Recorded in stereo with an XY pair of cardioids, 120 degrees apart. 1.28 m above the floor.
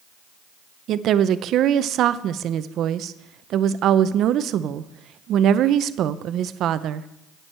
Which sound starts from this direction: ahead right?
A woman speaking, at 0.9 s.